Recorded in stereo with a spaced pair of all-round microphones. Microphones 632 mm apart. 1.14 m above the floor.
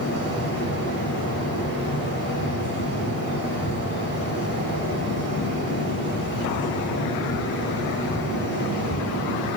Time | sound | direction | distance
0.0 | a fan | 30° left (ahead or behind) | 6.5 m